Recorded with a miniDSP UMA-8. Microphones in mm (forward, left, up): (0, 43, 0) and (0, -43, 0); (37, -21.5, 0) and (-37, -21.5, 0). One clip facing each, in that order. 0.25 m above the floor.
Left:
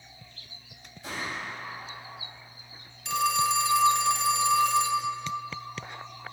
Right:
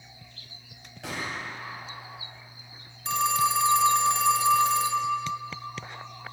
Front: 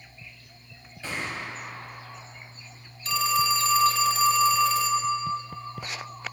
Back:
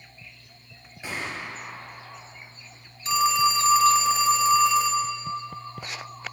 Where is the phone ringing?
120° right, 0.9 m.